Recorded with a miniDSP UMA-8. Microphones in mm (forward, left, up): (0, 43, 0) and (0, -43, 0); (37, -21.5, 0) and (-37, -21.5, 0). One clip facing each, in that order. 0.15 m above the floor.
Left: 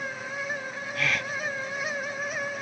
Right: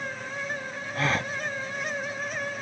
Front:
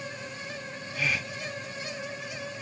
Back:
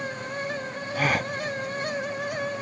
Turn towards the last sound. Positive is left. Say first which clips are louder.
# right 3 dB, back 6 dB
turn(degrees=-145)